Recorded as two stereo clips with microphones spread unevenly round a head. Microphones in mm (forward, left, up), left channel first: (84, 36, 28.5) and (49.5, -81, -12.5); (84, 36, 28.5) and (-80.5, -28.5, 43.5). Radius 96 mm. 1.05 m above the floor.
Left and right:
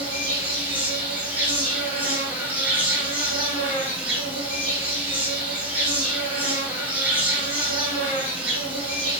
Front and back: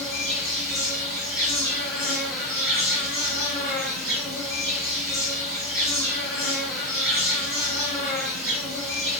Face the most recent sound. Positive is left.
turn(degrees=-65)